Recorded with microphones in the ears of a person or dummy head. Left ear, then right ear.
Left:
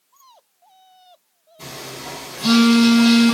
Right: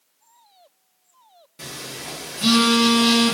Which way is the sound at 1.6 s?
55° right (ahead or behind).